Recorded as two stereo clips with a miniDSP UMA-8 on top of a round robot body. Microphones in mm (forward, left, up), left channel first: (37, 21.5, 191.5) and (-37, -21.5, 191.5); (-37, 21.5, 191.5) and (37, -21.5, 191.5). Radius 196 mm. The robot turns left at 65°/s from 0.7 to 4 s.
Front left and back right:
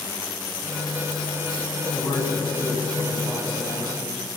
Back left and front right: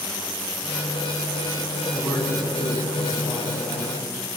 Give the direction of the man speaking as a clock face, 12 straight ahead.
11 o'clock.